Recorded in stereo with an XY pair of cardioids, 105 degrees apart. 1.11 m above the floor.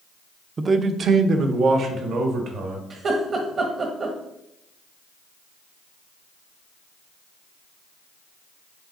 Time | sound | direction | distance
0.6 | a man speaking | 30° right | 0.5 m
2.9 | laughter | 45° right | 1.4 m